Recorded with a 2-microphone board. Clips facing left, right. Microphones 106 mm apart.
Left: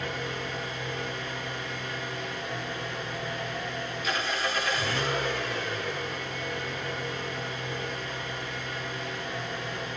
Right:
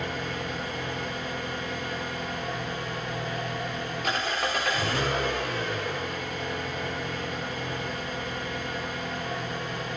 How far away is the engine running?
About 10 m.